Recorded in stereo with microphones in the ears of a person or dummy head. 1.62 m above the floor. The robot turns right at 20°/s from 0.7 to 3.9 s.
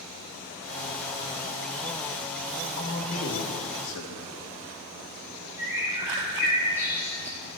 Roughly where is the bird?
Centre.